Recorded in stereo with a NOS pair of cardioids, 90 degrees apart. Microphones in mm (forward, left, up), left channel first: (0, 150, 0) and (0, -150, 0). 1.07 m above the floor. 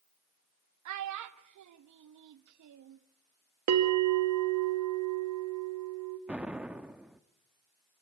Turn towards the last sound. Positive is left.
turn(degrees=-5)